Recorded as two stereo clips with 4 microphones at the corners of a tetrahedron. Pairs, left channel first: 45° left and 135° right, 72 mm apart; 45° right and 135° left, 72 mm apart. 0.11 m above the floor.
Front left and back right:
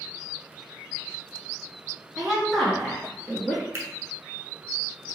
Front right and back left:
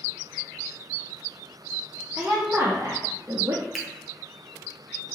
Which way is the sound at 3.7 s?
140° right.